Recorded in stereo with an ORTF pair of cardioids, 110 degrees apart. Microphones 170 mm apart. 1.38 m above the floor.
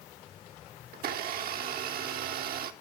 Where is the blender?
60° right, 0.9 m.